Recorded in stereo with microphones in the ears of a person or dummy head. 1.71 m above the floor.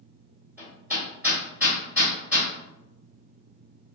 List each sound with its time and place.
0.6 s hammering: 10° right (ahead or behind), 1.7 m